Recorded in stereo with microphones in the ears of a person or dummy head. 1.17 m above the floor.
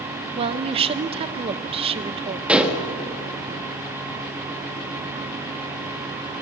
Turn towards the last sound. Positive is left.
turn(degrees=-10)  # may be behind; listen again after turning